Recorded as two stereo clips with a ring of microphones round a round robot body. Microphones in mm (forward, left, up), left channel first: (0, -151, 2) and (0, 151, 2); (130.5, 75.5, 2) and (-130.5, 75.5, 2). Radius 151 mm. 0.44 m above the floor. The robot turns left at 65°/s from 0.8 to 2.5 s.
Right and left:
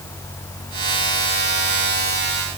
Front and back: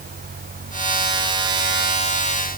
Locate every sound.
Only background noise.